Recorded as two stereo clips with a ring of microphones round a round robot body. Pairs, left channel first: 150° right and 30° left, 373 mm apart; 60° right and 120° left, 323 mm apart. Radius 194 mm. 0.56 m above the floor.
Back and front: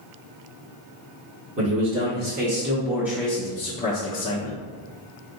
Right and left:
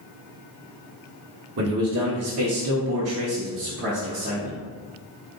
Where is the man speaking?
80° left, 1.4 m; by 4.5 s straight behind, 1.0 m.